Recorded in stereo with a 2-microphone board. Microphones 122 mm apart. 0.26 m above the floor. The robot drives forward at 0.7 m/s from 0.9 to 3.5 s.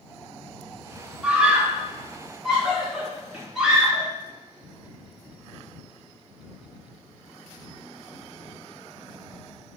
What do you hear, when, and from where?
1.2 s a scream: 10° right (ahead or behind), 1.2 m; by 4.1 s 5° right (ahead or behind), 2.5 m